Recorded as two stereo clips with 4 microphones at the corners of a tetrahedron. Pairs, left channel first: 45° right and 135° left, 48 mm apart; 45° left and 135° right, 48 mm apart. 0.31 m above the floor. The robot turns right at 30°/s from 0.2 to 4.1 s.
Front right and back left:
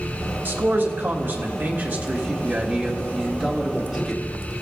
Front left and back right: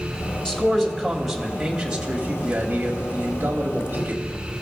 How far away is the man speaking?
About 2 m.